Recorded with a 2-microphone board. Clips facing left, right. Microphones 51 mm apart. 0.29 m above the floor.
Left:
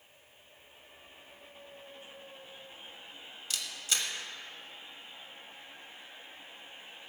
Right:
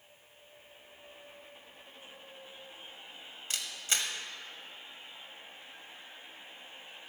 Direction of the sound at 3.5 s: 40° right (ahead or behind).